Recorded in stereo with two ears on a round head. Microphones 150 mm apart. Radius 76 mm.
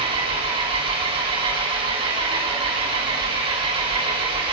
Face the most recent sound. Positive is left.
turn(degrees=-30)  # may be behind; listen again after turning